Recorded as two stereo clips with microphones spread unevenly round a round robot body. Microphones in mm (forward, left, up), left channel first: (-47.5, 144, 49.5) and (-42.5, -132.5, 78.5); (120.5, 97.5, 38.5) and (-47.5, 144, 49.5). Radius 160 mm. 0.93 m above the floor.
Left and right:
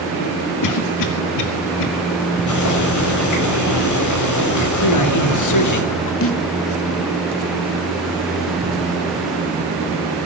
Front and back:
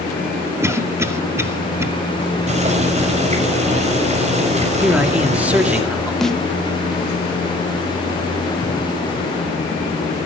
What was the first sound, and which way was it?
A cough, 85° left.